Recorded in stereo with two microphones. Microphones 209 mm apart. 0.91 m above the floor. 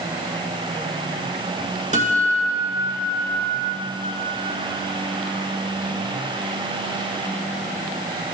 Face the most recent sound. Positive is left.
turn(degrees=-35)  # may be behind; listen again after turning